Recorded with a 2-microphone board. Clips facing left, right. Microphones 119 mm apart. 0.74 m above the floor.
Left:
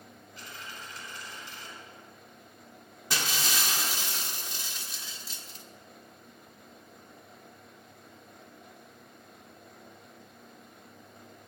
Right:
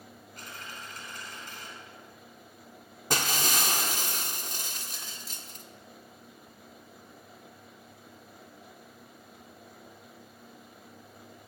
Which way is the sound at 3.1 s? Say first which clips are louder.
Right 3 dB; 45° right (ahead or behind).